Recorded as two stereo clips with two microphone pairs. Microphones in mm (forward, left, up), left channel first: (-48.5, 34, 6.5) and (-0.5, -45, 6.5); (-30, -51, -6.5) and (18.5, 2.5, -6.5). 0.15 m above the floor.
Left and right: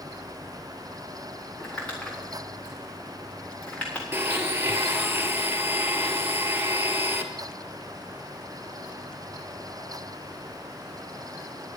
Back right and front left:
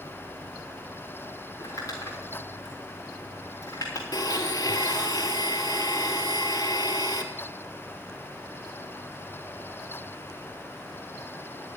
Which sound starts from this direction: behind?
Crumpling, at 1.6 s.